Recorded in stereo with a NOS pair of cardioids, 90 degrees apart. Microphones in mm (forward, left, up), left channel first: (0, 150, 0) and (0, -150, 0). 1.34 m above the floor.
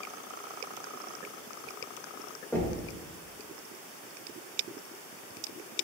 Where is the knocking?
5° left, 1.8 m.